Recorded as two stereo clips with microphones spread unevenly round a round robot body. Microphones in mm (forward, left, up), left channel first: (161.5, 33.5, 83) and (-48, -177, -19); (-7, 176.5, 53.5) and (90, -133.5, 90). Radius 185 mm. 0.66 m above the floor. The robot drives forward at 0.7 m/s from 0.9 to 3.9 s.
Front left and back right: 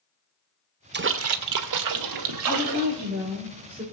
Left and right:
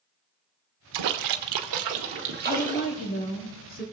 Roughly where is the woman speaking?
Behind left.